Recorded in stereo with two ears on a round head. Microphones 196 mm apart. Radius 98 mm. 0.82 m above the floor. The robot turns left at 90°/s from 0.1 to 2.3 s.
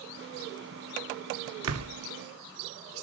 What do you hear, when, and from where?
1.6 s a door slam: 70° right (ahead or behind), 2.0 m